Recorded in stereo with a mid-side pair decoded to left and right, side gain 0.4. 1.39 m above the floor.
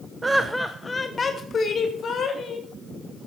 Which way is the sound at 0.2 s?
25° right.